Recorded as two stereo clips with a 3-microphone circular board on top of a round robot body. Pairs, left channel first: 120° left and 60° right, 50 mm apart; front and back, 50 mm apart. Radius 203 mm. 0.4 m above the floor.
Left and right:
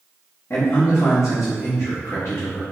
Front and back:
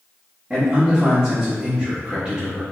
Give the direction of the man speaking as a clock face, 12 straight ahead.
8 o'clock.